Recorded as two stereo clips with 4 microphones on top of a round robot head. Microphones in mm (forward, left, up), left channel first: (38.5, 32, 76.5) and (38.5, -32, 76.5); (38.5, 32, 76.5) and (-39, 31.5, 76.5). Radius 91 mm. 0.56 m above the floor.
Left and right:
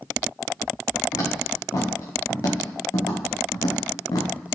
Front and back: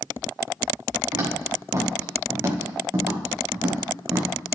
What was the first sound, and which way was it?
Footsteps, 135° left.